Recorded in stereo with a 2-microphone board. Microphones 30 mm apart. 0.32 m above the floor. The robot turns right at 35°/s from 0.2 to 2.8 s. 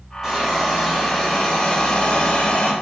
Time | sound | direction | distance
0.2 | a hiss | 20° right | 2.5 m